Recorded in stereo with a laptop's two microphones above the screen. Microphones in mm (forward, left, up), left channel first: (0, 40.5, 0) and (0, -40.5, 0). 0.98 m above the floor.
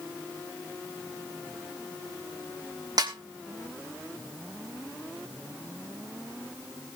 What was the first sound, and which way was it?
A snare drum, 50° right (ahead or behind).